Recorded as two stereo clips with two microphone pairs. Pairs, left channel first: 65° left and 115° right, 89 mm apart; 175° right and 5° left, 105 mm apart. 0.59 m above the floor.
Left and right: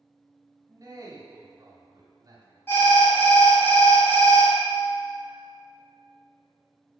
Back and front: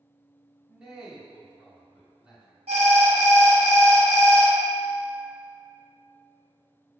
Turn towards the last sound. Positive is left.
turn(degrees=5)